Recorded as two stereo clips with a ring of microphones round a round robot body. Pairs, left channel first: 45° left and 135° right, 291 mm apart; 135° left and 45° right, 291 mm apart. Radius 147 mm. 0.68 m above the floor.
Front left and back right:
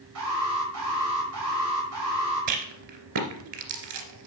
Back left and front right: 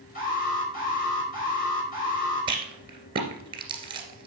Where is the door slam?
I don't hear a door slam.